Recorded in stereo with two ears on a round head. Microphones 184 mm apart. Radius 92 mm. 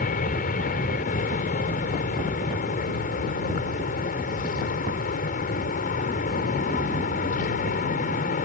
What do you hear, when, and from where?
0.0 s an aircraft: 40° left (ahead or behind)